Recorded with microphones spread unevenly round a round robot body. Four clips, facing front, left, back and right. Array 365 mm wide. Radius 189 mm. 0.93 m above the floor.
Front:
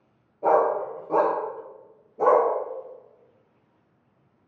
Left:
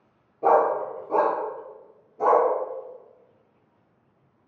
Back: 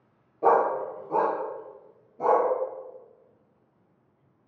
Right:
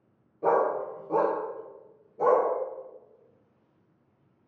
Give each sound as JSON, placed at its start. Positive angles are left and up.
{"t": 0.4, "sound": "a dog barking", "azimuth_deg": 175, "distance_m": 0.6}